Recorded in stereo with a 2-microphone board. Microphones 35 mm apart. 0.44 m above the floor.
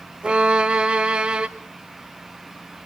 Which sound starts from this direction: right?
A violin, at 0.2 s.